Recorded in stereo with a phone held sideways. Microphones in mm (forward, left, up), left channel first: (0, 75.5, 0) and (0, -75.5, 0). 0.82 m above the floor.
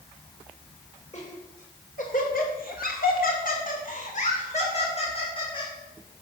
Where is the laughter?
50° left (ahead or behind), 3.5 m; by 5.7 s 35° left (ahead or behind), 4 m.